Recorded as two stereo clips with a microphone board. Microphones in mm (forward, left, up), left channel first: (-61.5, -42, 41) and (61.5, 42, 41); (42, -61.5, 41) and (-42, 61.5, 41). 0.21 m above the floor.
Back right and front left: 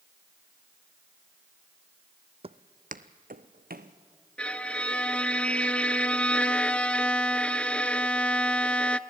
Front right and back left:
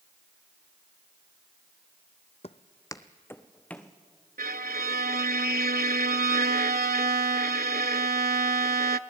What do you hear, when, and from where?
2.4 s footsteps: 10° right, 0.6 m; by 3.9 s 25° left, 1.6 m
4.4 s a violin: 130° left, 0.6 m